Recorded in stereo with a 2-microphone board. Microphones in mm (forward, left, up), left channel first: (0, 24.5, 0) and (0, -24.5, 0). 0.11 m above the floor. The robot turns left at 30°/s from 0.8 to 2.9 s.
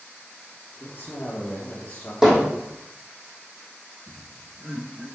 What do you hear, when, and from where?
0.8 s a man speaking: 70° left, 3 m; by 2.1 s 30° left, 3 m
2.2 s hammering: 5° right (ahead or behind), 3.5 m; by 2.5 s 15° right (ahead or behind), 3.5 m
4.1 s laughter: 55° right (ahead or behind), 3.5 m